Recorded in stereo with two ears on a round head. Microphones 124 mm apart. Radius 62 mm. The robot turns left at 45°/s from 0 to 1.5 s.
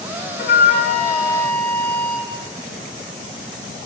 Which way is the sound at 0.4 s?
70° left.